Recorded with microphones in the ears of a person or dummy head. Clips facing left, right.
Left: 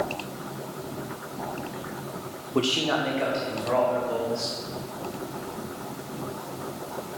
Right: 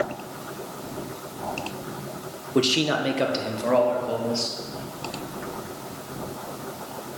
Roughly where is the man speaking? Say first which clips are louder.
Right 3 dB; centre.